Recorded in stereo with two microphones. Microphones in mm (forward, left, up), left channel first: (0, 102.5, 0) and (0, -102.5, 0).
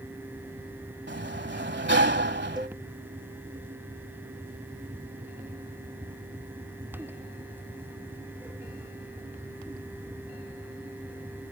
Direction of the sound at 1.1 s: 65° right (ahead or behind).